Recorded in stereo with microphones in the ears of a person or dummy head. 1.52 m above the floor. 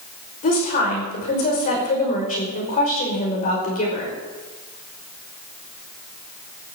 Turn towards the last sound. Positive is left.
turn(degrees=45)  # may be behind; listen again after turning